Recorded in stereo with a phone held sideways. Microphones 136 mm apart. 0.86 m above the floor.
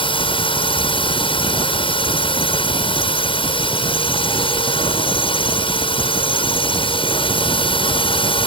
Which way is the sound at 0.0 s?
45° left (ahead or behind).